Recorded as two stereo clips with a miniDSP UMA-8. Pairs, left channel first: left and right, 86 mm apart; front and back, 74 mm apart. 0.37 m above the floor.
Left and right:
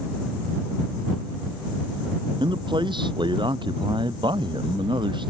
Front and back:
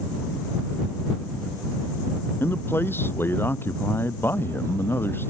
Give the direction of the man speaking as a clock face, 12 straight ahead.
2 o'clock.